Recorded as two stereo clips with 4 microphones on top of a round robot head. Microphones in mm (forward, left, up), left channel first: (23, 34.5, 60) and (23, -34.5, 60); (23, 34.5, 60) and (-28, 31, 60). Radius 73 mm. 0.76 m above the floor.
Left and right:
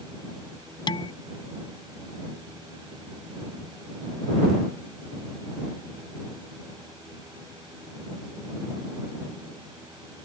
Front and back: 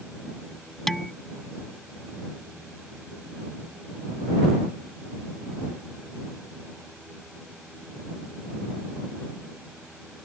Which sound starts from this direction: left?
Dishes clattering, at 0.9 s.